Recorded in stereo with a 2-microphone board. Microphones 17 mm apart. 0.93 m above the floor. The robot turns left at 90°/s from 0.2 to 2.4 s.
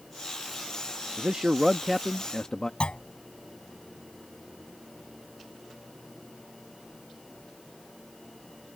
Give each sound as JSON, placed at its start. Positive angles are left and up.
{"t": 1.2, "sound": "a man speaking", "azimuth_deg": -110}
{"t": 2.8, "sound": "a clunk", "side_deg": 60}